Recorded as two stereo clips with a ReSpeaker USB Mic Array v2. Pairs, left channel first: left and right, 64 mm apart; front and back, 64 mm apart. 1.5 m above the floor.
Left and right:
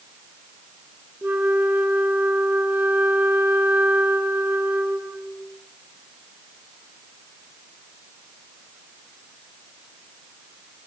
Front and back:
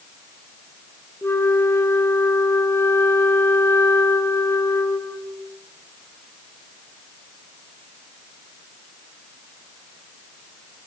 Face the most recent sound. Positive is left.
turn(degrees=-35)